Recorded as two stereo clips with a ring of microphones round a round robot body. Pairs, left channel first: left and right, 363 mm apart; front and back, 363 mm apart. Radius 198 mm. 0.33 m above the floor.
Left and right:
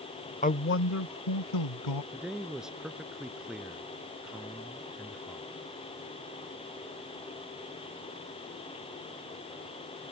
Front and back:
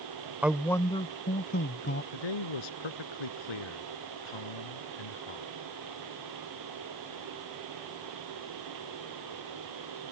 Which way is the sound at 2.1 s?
Straight ahead.